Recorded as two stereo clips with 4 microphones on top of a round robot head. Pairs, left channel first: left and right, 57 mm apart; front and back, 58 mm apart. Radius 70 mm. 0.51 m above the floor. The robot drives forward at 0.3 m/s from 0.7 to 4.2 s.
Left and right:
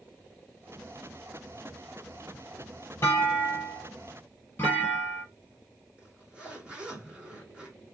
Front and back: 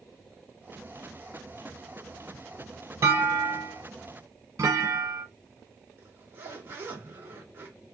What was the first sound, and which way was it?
A clunk, 145° left.